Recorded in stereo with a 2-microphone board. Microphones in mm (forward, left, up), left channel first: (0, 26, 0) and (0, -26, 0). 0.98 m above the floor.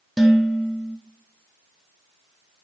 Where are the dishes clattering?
Centre (ahead or behind), 0.9 m.